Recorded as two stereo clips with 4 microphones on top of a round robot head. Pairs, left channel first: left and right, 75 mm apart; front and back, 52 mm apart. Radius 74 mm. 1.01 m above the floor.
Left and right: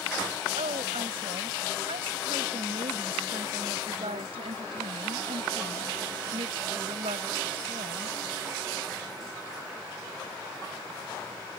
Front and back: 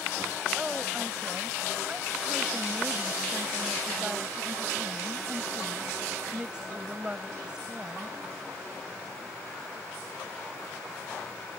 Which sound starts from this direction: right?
A woman speaking, at 0.6 s.